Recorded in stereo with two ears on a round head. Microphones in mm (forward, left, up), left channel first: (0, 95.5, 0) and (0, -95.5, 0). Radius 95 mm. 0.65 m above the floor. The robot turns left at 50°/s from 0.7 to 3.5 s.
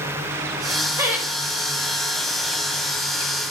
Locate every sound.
1.0 s laughter: 15° right (ahead or behind), 3 m; by 1.3 s centre (ahead or behind), 3 m